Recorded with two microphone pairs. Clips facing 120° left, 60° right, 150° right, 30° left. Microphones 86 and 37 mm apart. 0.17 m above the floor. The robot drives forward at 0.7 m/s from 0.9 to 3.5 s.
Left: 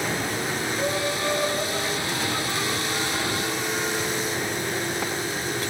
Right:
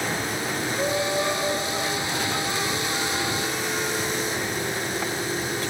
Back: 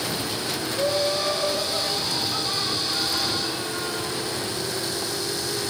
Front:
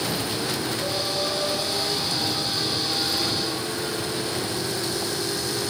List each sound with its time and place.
0.7 s laughter: 130° right, 2.5 m; by 4.2 s 150° right, 4 m